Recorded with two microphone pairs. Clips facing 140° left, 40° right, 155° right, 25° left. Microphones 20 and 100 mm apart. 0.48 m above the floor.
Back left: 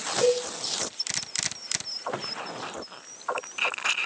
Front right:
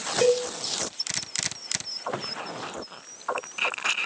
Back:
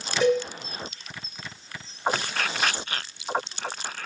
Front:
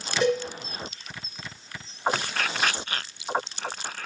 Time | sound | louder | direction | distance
0.2 | a cowbell | front right 2 dB, back 2 dB | 65° right | 2.5 m